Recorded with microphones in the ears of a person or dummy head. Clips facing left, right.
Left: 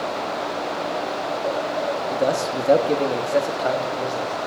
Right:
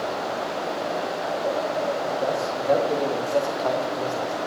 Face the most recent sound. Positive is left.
turn(degrees=5)  # may be behind; listen again after turning